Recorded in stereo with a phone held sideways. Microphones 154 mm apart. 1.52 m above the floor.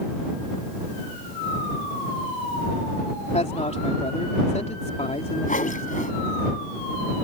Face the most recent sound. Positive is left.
turn(degrees=55)  # may be behind; listen again after turning